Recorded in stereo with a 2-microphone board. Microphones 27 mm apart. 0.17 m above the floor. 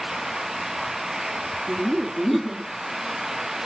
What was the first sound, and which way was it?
Laughter, centre (ahead or behind).